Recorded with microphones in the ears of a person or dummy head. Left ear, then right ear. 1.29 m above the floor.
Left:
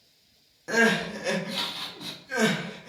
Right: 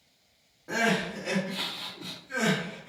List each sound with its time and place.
0.7 s crying: 80° left, 0.9 m